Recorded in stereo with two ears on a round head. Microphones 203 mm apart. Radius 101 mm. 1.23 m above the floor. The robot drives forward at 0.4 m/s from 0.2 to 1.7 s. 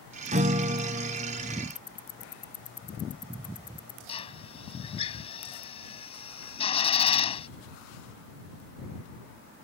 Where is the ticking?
25° left (ahead or behind).